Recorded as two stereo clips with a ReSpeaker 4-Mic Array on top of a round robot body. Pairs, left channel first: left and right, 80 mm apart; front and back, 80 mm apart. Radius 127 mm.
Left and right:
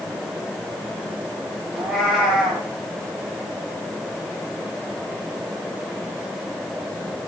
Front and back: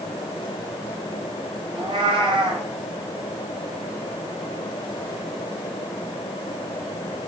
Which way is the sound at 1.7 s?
175° right.